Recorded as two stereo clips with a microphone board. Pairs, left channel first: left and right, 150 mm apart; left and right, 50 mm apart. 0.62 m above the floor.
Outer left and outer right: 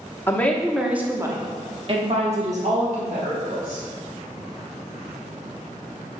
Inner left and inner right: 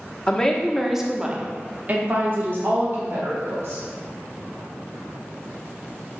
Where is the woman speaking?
15° left (ahead or behind), 0.9 m; by 3.8 s 70° right (ahead or behind), 2 m.